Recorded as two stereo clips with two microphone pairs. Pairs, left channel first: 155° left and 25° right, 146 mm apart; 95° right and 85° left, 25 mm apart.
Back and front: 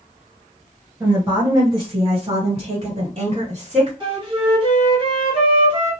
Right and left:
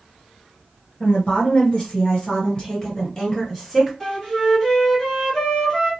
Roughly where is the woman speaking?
Right.